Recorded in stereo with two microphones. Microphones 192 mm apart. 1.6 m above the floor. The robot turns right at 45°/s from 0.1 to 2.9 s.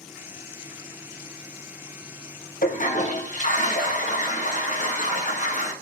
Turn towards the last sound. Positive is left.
turn(degrees=45)  # may be behind; listen again after turning